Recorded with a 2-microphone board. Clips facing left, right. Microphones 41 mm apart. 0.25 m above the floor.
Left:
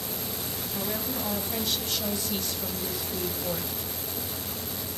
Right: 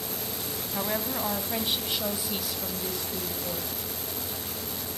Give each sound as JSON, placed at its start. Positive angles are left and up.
{"t": 0.7, "sound": "a woman speaking", "side_deg": -35, "distance_m": 2.0}